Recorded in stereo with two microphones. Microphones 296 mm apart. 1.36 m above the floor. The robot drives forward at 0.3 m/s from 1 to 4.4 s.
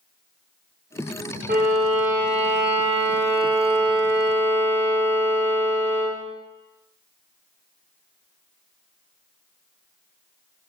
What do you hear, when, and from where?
1.5 s a violin: 30° right (ahead or behind), 0.6 m; by 6.2 s 15° right (ahead or behind), 1.3 m